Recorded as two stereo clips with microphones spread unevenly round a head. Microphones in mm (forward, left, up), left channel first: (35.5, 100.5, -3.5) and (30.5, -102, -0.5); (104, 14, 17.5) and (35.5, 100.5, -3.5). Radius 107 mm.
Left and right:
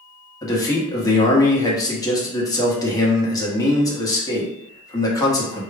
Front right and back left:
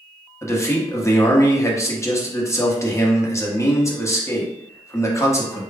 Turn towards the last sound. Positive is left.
turn(degrees=15)